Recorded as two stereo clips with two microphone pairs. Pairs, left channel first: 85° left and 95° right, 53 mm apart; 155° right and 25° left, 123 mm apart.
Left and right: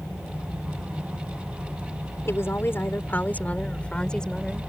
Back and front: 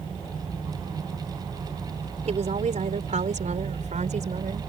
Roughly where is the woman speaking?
Ahead left.